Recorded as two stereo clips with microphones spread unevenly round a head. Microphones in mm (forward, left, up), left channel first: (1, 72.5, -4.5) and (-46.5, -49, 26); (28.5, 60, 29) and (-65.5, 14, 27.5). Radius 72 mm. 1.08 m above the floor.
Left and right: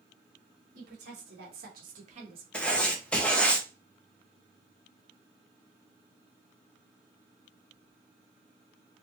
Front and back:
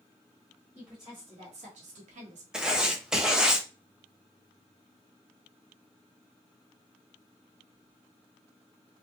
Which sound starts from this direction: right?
A woman speaking, at 0.8 s.